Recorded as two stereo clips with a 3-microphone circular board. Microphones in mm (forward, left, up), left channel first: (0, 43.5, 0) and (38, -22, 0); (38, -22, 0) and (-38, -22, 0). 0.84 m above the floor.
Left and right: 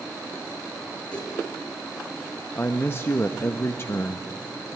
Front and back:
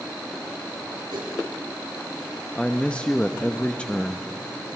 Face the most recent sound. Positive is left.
turn(degrees=70)